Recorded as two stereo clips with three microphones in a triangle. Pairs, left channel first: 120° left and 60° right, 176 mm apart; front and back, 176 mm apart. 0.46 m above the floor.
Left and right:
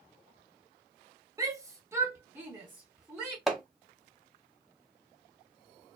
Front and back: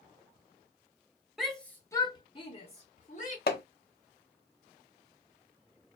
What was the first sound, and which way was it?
A shout, 95° right.